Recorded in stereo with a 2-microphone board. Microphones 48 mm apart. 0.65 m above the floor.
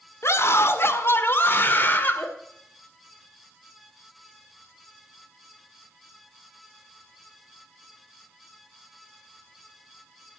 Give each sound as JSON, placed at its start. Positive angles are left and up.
{"t": 0.2, "sound": "a scream", "side_deg": 60, "distance_m": 1.8}